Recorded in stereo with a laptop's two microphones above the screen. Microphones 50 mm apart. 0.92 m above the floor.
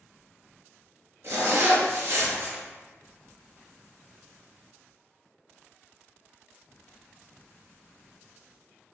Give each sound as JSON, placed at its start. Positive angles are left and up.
{"t": 1.2, "sound": "a zipper", "side_deg": -65, "distance_m": 1.4}